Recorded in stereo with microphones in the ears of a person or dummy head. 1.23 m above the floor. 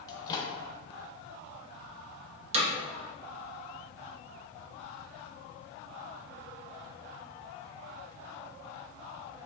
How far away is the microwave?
About 0.6 m.